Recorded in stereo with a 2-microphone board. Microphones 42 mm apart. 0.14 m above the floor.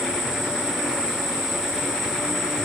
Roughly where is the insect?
Centre.